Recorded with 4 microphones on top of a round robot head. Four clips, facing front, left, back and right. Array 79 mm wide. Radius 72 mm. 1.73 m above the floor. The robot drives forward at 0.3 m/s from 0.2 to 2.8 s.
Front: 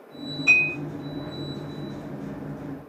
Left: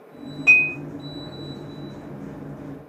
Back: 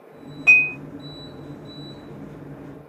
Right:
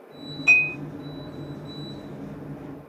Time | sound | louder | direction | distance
0.5 | dishes clattering | left 3 dB, back 4 dB | 145° left | 1.2 m